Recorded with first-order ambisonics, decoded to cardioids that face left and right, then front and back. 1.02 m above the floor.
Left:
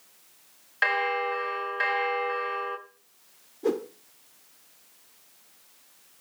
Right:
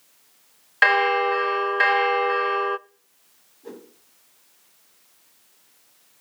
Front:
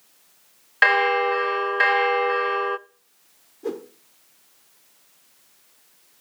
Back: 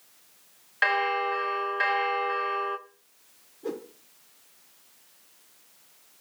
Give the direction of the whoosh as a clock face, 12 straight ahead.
10 o'clock.